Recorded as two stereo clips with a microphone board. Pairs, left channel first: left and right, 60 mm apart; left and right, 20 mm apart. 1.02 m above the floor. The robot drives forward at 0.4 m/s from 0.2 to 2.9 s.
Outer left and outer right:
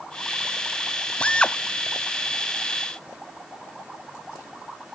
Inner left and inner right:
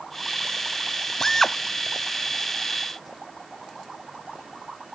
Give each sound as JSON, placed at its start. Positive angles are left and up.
{"t": 1.2, "sound": "a drill", "side_deg": 20}